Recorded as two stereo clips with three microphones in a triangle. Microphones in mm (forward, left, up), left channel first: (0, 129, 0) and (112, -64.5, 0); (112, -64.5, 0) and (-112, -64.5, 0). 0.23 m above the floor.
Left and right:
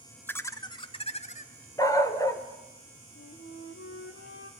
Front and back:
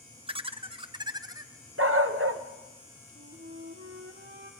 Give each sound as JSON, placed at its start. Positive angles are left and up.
{"t": 0.3, "sound": "laughter", "azimuth_deg": -170, "distance_m": 1.1}
{"t": 1.8, "sound": "a dog barking", "azimuth_deg": -165, "distance_m": 1.4}
{"t": 3.1, "sound": "a flute", "azimuth_deg": 140, "distance_m": 2.5}